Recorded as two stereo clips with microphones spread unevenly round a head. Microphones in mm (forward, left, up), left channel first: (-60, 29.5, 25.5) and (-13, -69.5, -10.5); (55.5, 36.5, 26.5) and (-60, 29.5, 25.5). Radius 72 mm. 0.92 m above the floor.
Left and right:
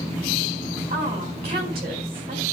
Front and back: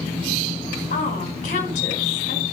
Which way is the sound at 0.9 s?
20° right.